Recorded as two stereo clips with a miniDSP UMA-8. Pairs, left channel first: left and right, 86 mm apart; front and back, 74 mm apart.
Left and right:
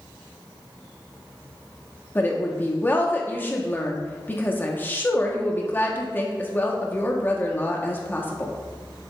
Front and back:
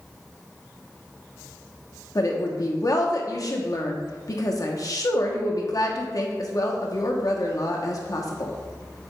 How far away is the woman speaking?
About 1.1 m.